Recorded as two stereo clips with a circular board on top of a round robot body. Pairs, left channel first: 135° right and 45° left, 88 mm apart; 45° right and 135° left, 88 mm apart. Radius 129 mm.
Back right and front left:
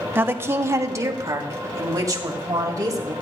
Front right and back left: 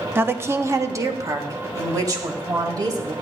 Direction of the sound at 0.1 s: 90° left.